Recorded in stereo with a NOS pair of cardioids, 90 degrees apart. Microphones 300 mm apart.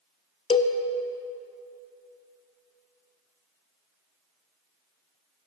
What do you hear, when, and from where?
0.5 s a cowbell: 20° left, 0.6 m